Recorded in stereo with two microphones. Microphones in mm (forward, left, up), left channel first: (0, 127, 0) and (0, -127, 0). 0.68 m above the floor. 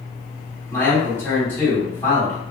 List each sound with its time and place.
0.7 s a man speaking: 10° left (ahead or behind), 1.9 m